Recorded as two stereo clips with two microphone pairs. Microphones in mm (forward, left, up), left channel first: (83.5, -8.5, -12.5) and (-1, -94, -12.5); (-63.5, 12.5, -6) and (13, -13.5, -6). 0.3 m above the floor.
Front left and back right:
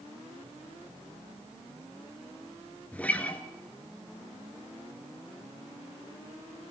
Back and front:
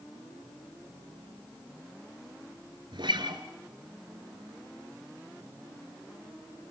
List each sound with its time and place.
2.9 s a guitar: 35° right, 1.6 m